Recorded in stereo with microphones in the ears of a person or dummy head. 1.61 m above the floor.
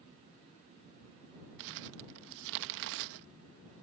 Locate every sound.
1.6 s crumpling: 65° right (ahead or behind)